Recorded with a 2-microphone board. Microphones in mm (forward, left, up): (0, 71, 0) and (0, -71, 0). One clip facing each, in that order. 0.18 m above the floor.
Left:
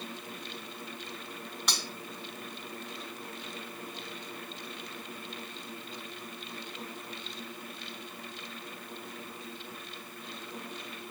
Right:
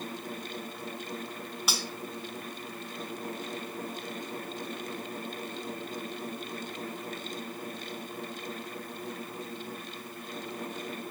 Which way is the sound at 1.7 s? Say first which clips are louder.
Right 2 dB; 5° right (ahead or behind).